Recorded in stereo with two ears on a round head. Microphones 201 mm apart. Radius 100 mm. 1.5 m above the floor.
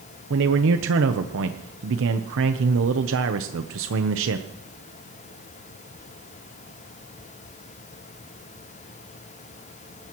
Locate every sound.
0.3 s a man speaking: 60° right (ahead or behind), 0.9 m